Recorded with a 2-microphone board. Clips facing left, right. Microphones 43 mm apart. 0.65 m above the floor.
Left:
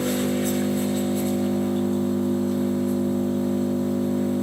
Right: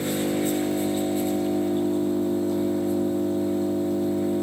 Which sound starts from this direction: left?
An engine running, at 0.0 s.